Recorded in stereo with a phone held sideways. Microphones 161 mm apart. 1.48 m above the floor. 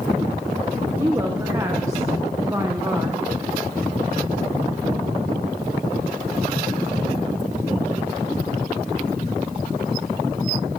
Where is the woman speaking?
20° right (ahead or behind), 1.2 m.